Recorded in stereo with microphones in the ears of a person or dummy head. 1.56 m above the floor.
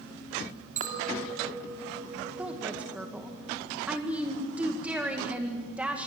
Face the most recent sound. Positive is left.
turn(degrees=-10)  # may be behind; listen again after turning